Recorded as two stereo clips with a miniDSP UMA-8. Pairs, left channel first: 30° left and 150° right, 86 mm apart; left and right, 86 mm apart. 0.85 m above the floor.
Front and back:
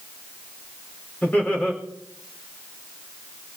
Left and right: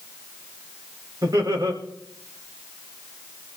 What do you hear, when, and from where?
1.2 s laughter: 40° right, 5 m